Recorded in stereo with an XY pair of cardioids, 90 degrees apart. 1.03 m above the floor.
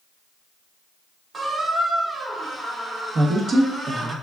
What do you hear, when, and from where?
1.3 s a squeak: 35° right, 0.8 m
3.1 s a woman speaking: 55° right, 0.5 m